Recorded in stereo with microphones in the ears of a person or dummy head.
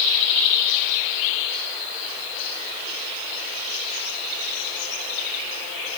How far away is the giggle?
No giggle in this recording.